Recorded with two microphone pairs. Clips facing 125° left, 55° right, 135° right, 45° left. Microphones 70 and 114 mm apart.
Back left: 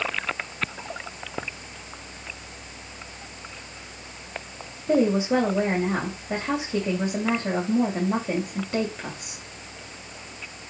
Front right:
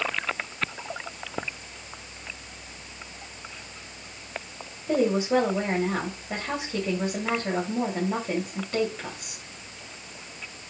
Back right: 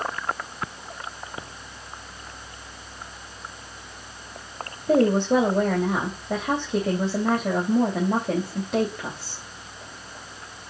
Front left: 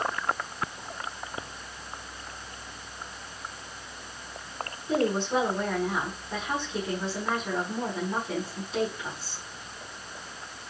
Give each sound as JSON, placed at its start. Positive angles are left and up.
{"t": 4.9, "sound": "a woman speaking", "azimuth_deg": -160, "distance_m": 3.0}